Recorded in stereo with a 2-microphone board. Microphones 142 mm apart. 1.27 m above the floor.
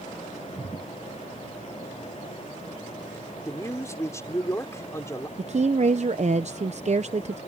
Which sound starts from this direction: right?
A woman speaking, at 5.4 s.